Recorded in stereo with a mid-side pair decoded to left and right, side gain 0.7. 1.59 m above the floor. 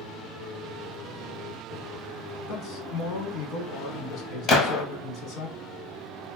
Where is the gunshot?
40° left, 1.0 m.